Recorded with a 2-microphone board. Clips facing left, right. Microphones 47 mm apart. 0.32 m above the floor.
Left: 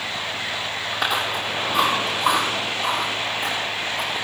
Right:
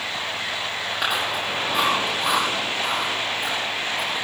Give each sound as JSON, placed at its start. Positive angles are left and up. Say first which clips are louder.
{"t": 0.9, "sound": "chewing", "louder": "left 1 dB", "side_deg": -5, "distance_m": 8.5}